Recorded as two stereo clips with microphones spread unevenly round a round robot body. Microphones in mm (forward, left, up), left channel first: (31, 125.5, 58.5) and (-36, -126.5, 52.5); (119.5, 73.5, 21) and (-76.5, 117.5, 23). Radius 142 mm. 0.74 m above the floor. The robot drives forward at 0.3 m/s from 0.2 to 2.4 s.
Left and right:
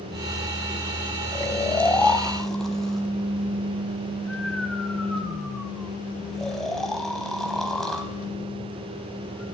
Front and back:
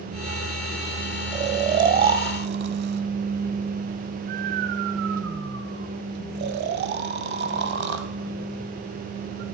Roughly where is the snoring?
Behind left.